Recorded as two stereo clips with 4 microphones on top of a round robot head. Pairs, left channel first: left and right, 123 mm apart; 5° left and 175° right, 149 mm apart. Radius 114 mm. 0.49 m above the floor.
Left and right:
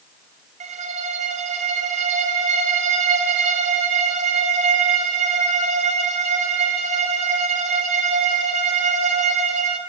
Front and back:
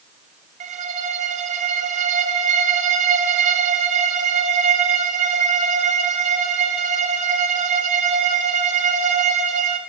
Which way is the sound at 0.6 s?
130° right.